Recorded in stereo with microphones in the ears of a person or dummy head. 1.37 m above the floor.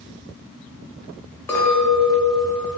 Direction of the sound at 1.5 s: 10° left (ahead or behind).